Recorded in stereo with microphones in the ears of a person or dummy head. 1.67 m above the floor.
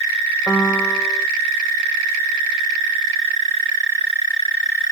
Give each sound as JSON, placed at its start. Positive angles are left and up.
{"t": 0.5, "sound": "a piano", "side_deg": 5}